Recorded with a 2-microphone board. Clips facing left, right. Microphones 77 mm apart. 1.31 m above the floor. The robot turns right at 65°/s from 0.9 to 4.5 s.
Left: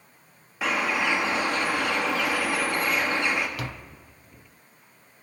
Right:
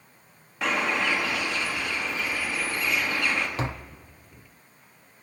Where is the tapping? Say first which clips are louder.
Right 4 dB; 25° right (ahead or behind), 0.7 m; by 4.0 s 5° right (ahead or behind), 0.7 m.